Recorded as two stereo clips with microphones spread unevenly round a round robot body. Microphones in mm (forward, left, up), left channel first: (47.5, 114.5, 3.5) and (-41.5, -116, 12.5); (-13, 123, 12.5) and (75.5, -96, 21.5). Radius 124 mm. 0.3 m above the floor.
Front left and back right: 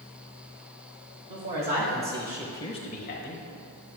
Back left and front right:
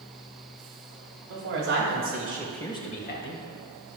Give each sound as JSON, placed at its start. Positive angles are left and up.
{"t": 1.3, "sound": "a woman speaking", "azimuth_deg": -70, "distance_m": 1.6}